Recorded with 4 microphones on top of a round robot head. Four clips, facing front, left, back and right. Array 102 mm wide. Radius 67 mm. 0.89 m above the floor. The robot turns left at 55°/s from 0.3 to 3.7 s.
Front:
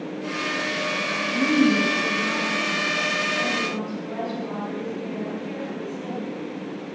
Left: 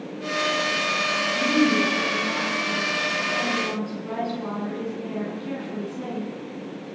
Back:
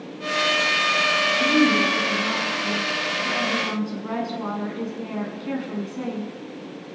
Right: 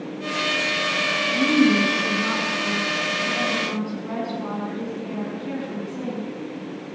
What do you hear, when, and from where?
1.3 s a woman speaking: 50° right, 8.5 m; by 6.3 s straight behind, 8.5 m